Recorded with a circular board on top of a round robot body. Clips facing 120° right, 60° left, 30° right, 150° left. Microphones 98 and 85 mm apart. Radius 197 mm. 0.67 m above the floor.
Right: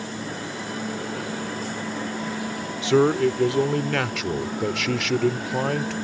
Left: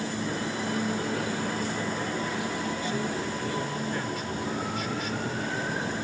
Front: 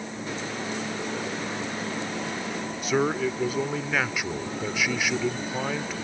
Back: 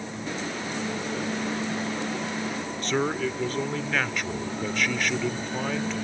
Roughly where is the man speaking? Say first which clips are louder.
Right 12 dB, front 2 dB; right.